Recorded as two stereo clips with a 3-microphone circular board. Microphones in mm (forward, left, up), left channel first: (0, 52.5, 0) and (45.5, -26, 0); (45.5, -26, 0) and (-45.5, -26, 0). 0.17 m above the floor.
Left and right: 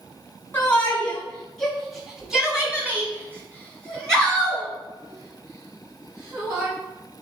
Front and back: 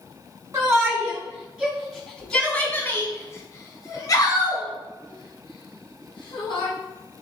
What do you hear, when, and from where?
0.5 s a shout: 170° left, 1.3 m; by 6.7 s 10° right, 2.5 m